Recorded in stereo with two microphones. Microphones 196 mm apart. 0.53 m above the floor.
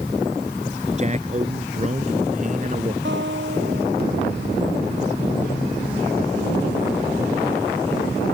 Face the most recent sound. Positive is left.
turn(degrees=-75)  # may be behind; listen again after turning